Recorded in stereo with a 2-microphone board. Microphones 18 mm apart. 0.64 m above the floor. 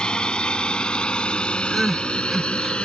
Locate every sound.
0.0 s a drone: 55° left (ahead or behind); by 2.9 s 70° left (ahead or behind)
1.7 s crying: centre (ahead or behind)